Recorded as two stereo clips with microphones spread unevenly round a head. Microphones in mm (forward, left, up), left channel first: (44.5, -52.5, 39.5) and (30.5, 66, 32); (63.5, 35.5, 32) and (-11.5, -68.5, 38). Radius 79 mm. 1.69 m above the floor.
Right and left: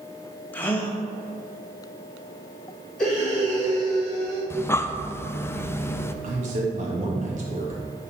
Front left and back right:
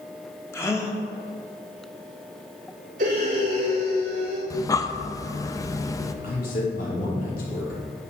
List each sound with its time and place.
0.5 s a gasp: 15° right, 1.3 m
3.0 s breathing: 165° right, 4 m
4.5 s breathing: 10° right, 0.6 m
6.2 s a man speaking: 80° left, 3.5 m